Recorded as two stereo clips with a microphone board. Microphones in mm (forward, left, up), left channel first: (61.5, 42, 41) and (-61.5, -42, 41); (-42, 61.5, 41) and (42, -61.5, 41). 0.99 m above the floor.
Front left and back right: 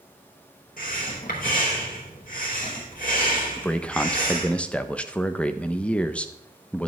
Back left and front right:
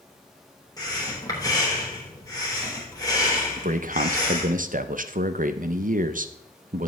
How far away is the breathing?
About 3 m.